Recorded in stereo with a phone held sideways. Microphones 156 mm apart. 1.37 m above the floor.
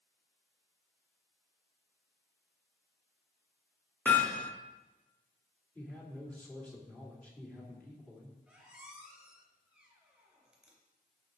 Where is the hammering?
10° left (ahead or behind), 1.5 m.